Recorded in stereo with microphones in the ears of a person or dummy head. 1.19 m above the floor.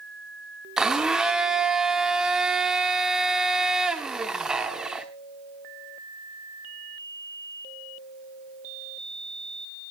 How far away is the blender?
About 1.0 m.